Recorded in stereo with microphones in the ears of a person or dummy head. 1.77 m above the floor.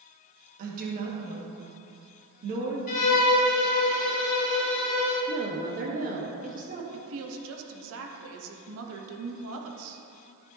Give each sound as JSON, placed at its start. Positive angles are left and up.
{"t": 0.6, "sound": "a woman speaking", "side_deg": -45, "distance_m": 2.0}
{"t": 2.9, "sound": "a violin", "side_deg": 50, "distance_m": 1.9}
{"t": 5.3, "sound": "a woman speaking", "side_deg": -45, "distance_m": 1.4}
{"t": 6.9, "sound": "a woman speaking", "side_deg": -80, "distance_m": 1.0}